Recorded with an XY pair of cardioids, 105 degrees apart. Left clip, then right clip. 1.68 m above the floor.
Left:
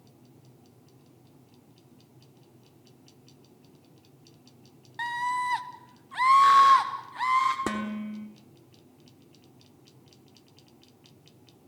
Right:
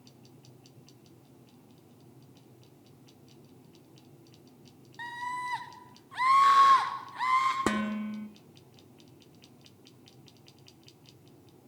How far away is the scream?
About 2 m.